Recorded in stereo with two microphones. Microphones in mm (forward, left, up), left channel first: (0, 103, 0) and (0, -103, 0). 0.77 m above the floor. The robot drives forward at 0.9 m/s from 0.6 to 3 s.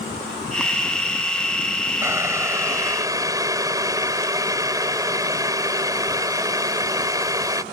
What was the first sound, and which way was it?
Boiling, 15° right (ahead or behind).